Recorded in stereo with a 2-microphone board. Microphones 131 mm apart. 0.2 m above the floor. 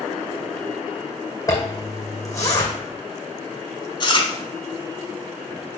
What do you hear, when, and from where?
1.5 s a zipper: 25° left (ahead or behind), 2 m
4.0 s chewing: 40° left (ahead or behind), 1.1 m